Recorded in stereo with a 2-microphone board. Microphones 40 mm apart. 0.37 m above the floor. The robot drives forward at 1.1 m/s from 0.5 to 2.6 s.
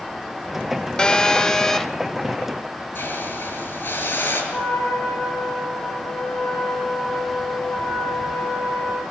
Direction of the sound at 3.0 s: 65° left (ahead or behind).